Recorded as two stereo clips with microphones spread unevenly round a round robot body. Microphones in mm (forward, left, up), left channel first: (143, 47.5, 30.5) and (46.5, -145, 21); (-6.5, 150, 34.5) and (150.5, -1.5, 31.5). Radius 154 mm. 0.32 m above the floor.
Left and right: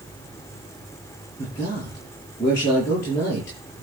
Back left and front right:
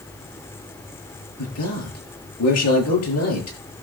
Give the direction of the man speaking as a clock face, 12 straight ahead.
7 o'clock.